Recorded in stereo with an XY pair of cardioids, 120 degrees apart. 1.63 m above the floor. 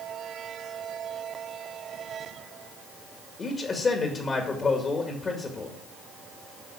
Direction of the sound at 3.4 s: 35° left.